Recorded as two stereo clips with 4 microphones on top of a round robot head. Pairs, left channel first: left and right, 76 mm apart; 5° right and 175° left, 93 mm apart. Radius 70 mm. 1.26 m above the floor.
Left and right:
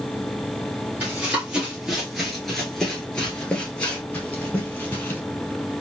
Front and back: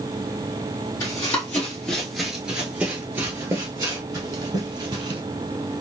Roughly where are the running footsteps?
Ahead right.